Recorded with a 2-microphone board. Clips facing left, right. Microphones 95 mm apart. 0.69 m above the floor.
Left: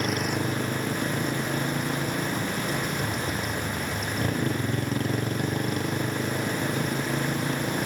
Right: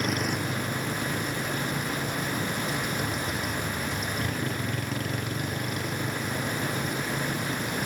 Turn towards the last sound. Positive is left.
turn(degrees=35)  # may be behind; listen again after turning